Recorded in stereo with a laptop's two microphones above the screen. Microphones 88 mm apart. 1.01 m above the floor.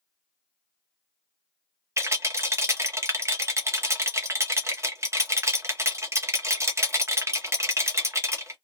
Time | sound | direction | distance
2.0 | a rattle | 30° right (ahead or behind) | 0.9 m